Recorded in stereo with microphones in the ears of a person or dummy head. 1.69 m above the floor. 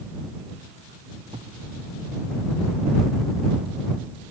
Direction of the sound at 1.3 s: 30° right (ahead or behind).